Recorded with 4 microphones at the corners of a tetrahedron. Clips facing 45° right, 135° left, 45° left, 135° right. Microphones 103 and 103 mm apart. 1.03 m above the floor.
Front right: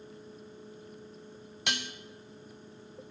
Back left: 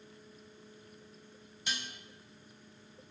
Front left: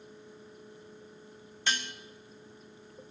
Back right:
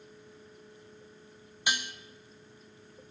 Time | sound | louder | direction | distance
1.7 | dishes clattering | front right 5 dB, back right 1 dB | 60° right | 0.6 m